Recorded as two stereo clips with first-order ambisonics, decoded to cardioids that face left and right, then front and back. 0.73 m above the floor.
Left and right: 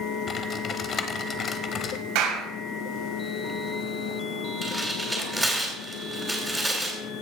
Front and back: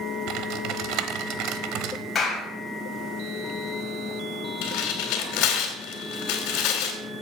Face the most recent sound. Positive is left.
turn(degrees=-5)